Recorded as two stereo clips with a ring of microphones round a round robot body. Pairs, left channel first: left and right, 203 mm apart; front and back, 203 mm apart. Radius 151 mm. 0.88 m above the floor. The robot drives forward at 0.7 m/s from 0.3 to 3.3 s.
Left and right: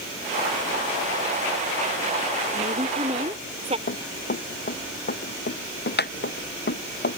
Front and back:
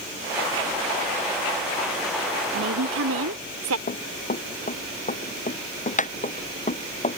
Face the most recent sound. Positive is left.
turn(degrees=55)